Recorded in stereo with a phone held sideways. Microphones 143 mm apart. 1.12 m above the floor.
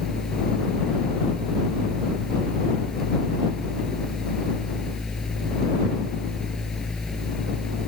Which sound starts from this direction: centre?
A fan, at 0.0 s.